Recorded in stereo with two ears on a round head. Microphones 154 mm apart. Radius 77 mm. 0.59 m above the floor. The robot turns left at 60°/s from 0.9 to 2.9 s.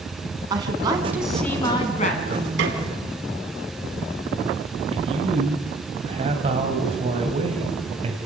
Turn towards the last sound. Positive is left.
turn(degrees=-35)  # may be behind; listen again after turning